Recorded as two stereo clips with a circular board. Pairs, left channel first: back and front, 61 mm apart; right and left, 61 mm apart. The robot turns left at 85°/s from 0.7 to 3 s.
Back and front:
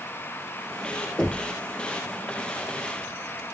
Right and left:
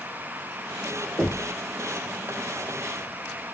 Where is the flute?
No flute in this recording.